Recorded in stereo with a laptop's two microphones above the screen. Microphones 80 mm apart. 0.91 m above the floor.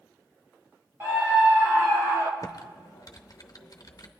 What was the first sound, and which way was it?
A scream, 25° right (ahead or behind).